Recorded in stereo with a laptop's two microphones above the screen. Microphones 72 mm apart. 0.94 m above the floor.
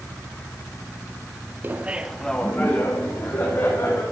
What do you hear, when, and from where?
1.6 s laughter: 30° right (ahead or behind), 0.8 m; by 4.0 s 50° left (ahead or behind), 2 m